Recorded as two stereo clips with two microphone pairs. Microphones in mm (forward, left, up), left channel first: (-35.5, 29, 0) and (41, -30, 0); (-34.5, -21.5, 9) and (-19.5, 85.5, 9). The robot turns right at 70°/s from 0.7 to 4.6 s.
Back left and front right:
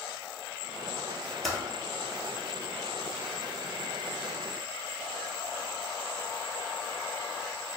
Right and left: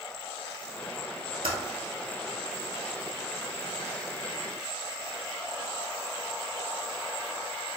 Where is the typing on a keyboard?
55° left, 0.8 m; by 1.6 s 60° left, 0.8 m.